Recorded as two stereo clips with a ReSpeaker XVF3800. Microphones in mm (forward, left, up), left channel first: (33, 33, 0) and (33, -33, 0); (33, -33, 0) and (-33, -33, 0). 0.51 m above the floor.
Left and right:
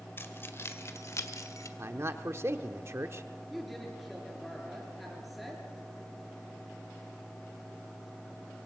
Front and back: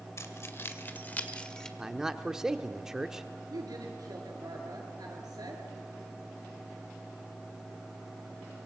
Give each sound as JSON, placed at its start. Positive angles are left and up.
{"t": 0.2, "sound": "keys jangling", "azimuth_deg": 40, "distance_m": 1.8}
{"t": 1.8, "sound": "a man speaking", "azimuth_deg": -100, "distance_m": 0.9}
{"t": 3.5, "sound": "a woman speaking", "azimuth_deg": 180, "distance_m": 6.5}